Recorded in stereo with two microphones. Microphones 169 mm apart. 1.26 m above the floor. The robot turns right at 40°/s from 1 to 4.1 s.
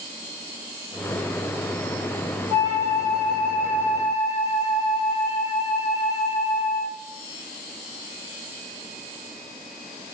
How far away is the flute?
About 1.5 m.